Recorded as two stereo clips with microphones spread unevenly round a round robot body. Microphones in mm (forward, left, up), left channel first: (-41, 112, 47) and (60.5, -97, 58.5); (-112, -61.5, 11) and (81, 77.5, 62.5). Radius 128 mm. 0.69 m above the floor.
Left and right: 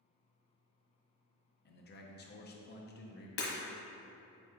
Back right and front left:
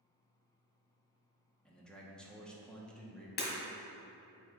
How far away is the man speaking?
About 0.9 m.